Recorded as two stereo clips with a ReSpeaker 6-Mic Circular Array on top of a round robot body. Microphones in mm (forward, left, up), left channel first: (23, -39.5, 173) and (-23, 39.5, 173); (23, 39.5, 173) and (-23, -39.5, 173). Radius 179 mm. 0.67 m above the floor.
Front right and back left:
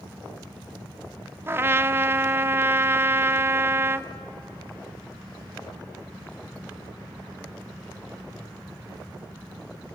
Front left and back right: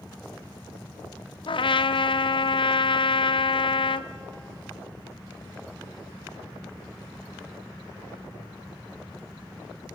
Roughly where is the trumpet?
Ahead left.